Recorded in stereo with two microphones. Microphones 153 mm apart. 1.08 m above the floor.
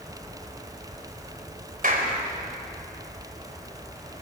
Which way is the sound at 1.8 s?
65° right (ahead or behind).